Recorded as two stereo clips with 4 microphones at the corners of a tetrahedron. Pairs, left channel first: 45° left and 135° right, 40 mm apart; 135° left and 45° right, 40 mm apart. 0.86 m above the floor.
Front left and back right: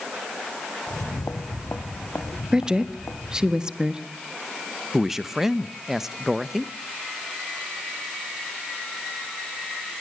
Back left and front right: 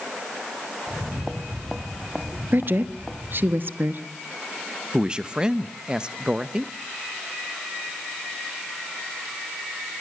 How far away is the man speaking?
About 0.9 m.